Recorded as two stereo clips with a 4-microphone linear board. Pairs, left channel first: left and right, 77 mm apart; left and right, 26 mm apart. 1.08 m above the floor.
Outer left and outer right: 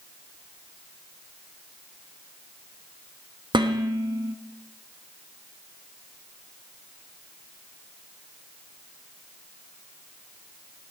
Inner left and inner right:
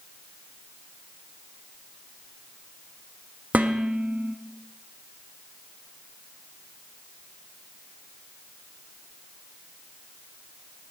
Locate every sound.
3.5 s dishes clattering: 70° right (ahead or behind), 1.0 m